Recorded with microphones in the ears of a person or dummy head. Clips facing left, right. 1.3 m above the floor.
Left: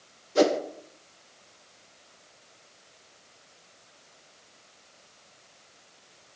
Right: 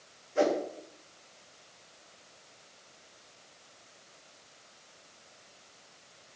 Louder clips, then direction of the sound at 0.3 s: Left 5 dB; 50° left (ahead or behind).